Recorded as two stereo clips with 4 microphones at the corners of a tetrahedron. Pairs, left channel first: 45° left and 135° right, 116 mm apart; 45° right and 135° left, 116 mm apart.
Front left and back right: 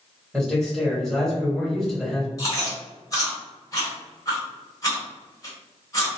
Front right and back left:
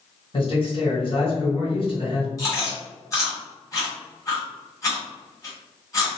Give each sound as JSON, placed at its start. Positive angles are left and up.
{"t": 0.3, "sound": "a man speaking", "azimuth_deg": -40, "distance_m": 2.0}
{"t": 2.4, "sound": "chewing", "azimuth_deg": 0, "distance_m": 1.5}